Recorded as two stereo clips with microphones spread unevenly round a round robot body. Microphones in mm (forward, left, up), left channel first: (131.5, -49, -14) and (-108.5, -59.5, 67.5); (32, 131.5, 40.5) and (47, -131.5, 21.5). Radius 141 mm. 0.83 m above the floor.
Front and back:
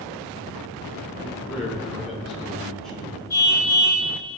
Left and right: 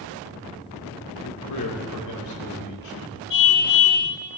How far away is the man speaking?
About 3 m.